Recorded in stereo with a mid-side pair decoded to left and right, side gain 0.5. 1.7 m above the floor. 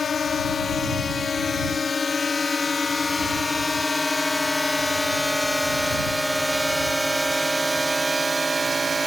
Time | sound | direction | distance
0.0 | a drone | 35° left | ?